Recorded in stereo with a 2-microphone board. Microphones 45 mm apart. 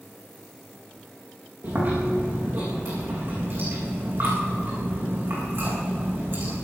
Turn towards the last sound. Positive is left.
turn(degrees=-55)  # may be behind; listen again after turning